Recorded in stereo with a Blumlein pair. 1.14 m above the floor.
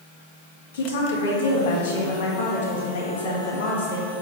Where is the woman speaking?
60° left, 1.9 m.